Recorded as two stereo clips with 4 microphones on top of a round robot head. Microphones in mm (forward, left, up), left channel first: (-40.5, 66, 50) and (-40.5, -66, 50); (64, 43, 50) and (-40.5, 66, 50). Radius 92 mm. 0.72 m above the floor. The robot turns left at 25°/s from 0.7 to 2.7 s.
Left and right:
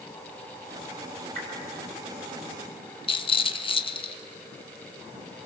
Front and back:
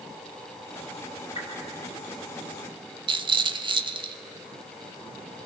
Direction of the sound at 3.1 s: 135° left.